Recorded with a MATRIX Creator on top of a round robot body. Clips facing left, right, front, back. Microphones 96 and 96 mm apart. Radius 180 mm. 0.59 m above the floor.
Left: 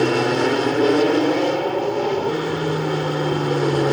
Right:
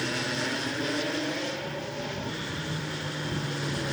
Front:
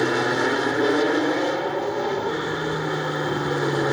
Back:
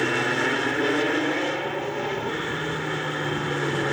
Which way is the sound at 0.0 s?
70° left.